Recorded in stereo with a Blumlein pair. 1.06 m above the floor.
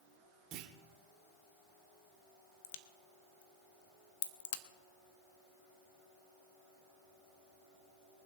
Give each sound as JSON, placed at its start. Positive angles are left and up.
{"t": 0.5, "sound": "a clunk", "azimuth_deg": -35, "distance_m": 1.5}
{"t": 2.6, "sound": "a crack", "azimuth_deg": 55, "distance_m": 1.2}